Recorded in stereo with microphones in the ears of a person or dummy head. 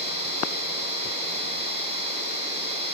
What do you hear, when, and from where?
0.0 s a machine running: 35° right (ahead or behind), 8.5 m